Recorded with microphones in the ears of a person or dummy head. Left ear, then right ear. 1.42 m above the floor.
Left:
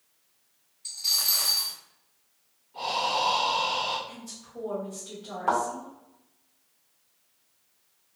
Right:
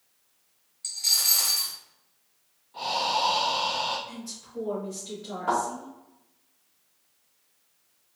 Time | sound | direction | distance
0.8 | a dropped coin | 40° right (ahead or behind) | 1.3 m
2.7 | breathing | 25° right (ahead or behind) | 1.3 m
4.1 | a woman speaking | 15° right (ahead or behind) | 1.4 m
5.5 | a thud | 10° left (ahead or behind) | 1.1 m